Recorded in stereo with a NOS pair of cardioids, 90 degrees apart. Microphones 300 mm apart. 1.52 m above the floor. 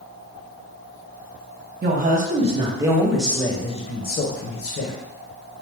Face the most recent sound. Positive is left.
turn(degrees=55)